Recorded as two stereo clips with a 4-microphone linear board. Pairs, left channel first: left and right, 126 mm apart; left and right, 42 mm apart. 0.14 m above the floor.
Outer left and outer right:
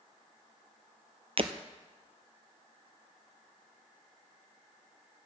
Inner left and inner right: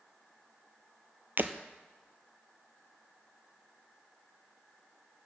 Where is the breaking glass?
50° right (ahead or behind), 0.8 m.